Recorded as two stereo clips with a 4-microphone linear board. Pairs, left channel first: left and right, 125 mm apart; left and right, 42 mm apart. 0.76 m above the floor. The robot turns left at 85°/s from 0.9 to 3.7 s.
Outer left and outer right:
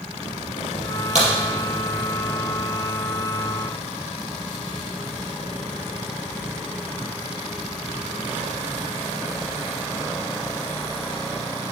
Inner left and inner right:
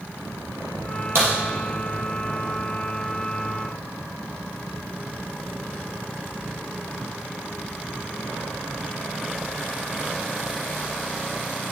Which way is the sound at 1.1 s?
70° right (ahead or behind).